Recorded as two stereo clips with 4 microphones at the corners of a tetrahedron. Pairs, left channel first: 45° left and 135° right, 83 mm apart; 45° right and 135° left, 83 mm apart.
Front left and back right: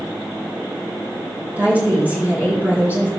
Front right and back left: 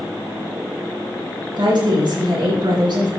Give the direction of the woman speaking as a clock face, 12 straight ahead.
7 o'clock.